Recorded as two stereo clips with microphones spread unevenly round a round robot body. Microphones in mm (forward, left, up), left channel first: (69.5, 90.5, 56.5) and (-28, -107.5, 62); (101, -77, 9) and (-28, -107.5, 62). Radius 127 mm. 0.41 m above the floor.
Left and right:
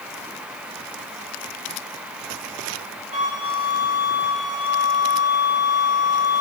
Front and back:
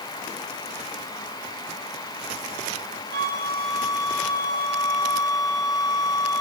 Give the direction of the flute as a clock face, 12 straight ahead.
6 o'clock.